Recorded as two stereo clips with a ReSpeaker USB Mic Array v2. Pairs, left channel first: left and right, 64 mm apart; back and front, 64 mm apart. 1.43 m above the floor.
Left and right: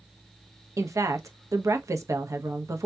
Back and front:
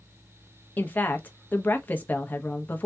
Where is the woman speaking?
120° right, 0.7 m.